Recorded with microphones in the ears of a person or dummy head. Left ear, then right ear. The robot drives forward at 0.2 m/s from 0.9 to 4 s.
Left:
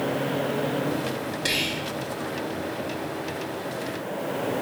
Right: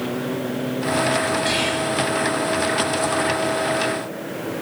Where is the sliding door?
No sliding door in this recording.